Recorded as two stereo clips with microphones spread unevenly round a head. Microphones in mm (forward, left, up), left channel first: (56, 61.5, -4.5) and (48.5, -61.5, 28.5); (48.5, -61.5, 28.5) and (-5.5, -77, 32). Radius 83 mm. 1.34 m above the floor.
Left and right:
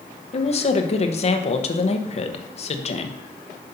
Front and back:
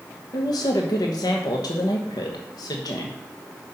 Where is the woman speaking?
50° left, 1.0 m.